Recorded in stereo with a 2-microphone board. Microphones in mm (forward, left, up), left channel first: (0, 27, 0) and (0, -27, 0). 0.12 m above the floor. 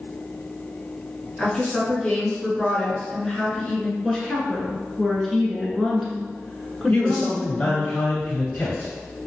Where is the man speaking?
20° left (ahead or behind), 1.2 m.